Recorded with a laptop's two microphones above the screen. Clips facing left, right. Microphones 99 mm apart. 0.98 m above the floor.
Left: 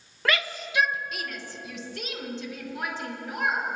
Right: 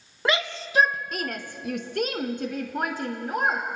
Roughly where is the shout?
Centre.